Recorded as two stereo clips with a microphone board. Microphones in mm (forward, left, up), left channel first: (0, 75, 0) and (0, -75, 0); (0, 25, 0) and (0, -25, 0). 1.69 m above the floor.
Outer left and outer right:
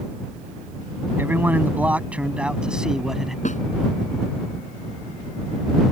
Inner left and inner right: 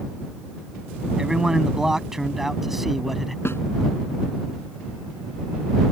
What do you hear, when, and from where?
1.2 s a man speaking: 15° right (ahead or behind); by 3.4 s centre (ahead or behind)
3.5 s a snare drum: 60° left (ahead or behind)